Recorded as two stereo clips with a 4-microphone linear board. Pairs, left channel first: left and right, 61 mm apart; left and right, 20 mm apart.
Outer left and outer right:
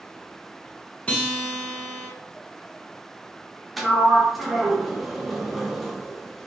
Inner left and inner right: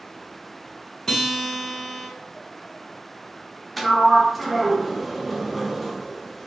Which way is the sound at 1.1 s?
20° left (ahead or behind).